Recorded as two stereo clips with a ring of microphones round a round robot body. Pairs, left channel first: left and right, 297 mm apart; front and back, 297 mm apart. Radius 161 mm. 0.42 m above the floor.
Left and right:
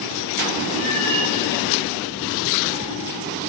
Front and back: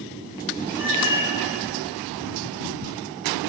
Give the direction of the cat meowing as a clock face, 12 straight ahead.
3 o'clock.